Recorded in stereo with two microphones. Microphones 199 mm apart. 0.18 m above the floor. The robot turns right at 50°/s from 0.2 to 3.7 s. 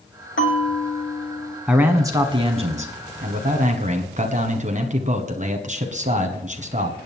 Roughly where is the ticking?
I don't hear ticking.